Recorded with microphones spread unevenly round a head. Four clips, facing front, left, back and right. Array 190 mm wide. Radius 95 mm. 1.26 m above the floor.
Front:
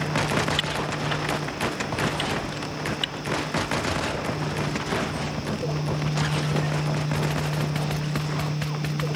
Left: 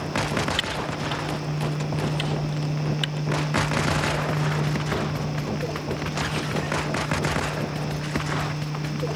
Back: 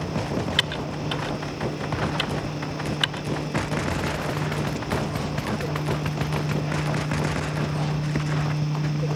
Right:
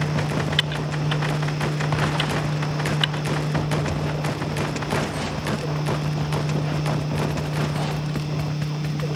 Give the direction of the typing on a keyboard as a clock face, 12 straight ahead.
5 o'clock.